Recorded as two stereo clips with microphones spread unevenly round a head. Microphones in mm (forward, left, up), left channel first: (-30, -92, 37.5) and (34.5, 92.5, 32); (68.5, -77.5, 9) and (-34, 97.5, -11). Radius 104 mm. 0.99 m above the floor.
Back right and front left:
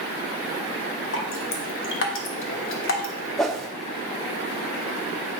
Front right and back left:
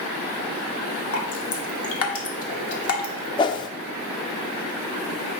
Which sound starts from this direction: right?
Dripping, at 1.1 s.